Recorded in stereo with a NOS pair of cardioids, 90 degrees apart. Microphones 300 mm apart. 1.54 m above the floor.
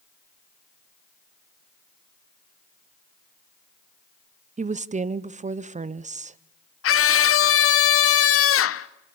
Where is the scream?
45° left, 1.1 m.